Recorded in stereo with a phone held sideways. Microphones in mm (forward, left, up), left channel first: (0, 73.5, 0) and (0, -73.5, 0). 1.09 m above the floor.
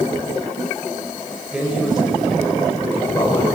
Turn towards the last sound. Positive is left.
turn(degrees=15)  # may be behind; listen again after turning